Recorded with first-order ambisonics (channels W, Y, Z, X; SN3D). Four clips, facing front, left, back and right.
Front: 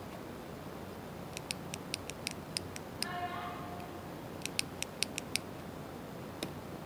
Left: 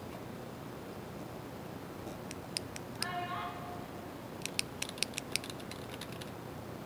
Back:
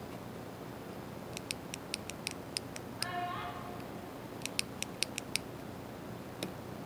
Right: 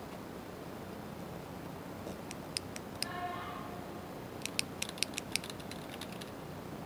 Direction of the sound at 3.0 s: 125° left.